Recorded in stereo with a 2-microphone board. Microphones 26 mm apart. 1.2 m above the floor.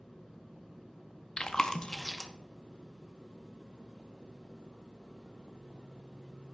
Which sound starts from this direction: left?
Chewing, at 1.4 s.